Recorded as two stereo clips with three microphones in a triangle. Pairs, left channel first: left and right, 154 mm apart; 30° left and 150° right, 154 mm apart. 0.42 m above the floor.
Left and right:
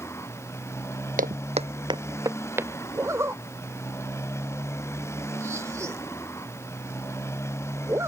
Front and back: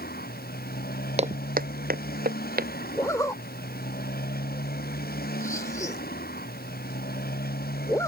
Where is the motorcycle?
15° left.